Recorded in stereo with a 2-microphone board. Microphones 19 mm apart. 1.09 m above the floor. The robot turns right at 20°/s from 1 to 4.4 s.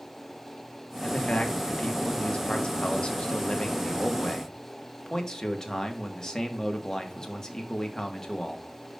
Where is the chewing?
I don't hear chewing.